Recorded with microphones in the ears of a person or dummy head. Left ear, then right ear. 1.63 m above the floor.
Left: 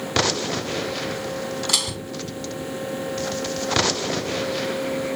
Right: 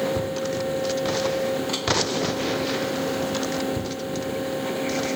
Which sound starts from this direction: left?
Dishes clattering, at 1.7 s.